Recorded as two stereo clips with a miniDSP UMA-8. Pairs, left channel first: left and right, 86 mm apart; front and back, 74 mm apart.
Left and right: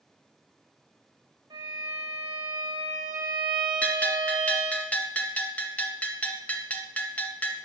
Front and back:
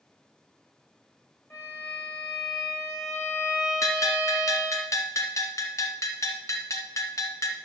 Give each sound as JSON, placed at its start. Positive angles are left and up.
{"t": 1.5, "sound": "a violin", "azimuth_deg": -50, "distance_m": 5.5}
{"t": 3.8, "sound": "a bell", "azimuth_deg": 20, "distance_m": 1.7}